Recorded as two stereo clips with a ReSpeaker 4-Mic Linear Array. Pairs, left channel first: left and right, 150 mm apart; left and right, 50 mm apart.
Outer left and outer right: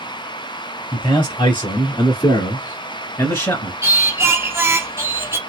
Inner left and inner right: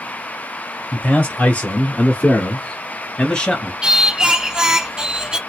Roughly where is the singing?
Centre.